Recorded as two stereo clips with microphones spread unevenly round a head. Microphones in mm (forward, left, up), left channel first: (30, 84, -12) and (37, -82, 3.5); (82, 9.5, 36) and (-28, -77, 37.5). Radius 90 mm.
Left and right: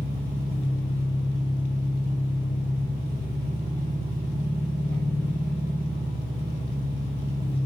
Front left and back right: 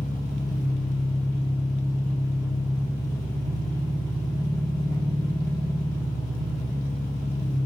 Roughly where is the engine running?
Ahead.